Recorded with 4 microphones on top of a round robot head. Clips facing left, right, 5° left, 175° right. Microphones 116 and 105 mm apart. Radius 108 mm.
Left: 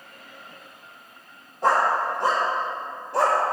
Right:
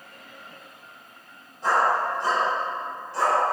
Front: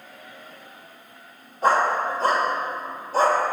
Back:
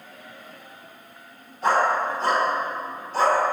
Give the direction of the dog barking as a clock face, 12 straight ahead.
10 o'clock.